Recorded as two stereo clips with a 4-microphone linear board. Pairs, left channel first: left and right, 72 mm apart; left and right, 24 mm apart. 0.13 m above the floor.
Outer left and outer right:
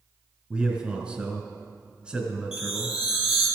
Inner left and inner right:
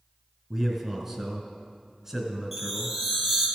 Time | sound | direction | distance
0.5 | a man speaking | 15° right (ahead or behind) | 1.6 m
2.5 | a chime | 10° right (ahead or behind) | 2.5 m